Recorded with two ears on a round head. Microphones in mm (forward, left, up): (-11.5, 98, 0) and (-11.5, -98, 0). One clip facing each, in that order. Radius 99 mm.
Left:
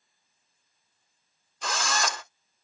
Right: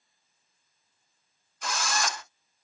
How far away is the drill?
About 1.7 m.